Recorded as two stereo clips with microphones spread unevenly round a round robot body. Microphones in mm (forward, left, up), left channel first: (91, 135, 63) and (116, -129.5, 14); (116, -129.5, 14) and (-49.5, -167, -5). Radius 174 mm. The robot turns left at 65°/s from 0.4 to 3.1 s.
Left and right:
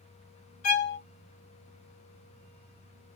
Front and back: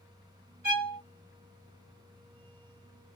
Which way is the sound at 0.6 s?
140° left.